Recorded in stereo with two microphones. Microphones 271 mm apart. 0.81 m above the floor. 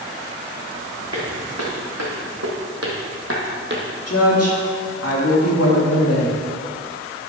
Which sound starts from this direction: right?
Footsteps, at 1.1 s.